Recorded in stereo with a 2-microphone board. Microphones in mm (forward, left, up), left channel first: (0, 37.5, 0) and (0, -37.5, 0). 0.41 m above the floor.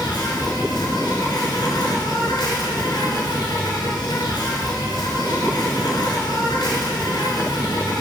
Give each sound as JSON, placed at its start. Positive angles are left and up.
{"t": 0.0, "sound": "an insect", "side_deg": 75, "distance_m": 1.6}